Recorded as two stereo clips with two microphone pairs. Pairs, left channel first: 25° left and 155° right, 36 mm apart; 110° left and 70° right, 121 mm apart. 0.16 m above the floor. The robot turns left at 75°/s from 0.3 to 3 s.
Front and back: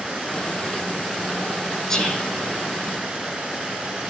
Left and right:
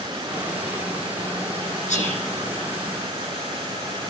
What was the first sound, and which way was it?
Whispering, 105° left.